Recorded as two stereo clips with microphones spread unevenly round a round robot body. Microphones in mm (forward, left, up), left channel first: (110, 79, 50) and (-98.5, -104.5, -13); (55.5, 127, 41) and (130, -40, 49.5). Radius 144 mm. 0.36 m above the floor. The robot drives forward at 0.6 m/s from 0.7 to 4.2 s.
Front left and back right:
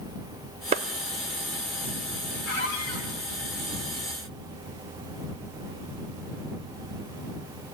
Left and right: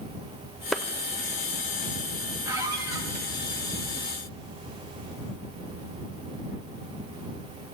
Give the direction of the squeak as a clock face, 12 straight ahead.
12 o'clock.